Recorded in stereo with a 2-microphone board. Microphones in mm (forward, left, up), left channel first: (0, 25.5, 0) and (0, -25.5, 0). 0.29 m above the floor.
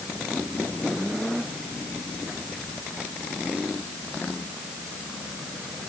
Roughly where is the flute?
I don't hear a flute.